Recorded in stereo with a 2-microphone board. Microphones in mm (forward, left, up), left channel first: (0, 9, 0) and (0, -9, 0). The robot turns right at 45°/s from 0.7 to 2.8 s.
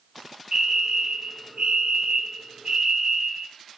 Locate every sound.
0.5 s a fire alarm: 130° right, 4 m; by 3.5 s 35° right, 4 m